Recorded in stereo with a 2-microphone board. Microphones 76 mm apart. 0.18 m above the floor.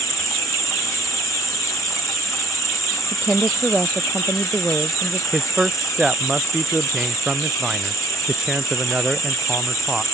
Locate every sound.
0.0 s an insect: 50° left (ahead or behind)
3.1 s a woman speaking: 25° right (ahead or behind)
5.3 s a man speaking: 15° right (ahead or behind)